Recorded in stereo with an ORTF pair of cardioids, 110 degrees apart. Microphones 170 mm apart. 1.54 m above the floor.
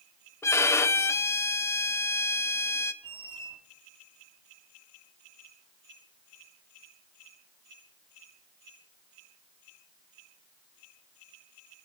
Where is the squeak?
30° right, 2.5 m.